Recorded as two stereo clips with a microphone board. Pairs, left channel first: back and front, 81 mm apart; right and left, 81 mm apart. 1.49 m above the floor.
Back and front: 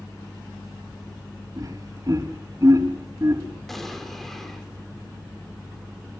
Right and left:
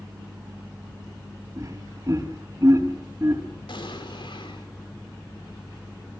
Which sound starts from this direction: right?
An explosion, at 3.7 s.